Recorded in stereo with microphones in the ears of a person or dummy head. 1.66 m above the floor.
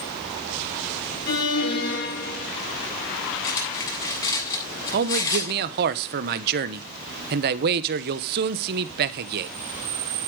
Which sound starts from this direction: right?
A man speaking, at 4.9 s.